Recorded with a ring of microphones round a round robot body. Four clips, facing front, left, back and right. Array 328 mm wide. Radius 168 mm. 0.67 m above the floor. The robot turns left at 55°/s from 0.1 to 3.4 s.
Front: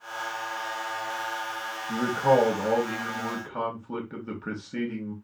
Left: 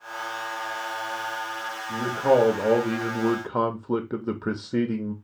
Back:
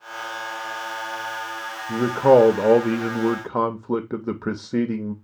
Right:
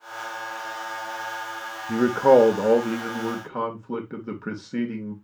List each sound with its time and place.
1.9 s a man speaking: 120° right, 0.6 m; by 5.1 s 155° left, 0.6 m